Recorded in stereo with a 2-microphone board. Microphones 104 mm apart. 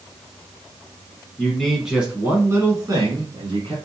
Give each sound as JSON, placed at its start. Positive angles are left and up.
{"t": 1.4, "sound": "a man speaking", "side_deg": 10, "distance_m": 1.2}